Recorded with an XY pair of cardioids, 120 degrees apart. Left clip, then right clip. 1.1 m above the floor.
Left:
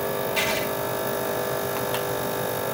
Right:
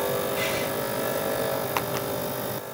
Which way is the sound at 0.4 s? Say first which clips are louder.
Left 3 dB; 65° left.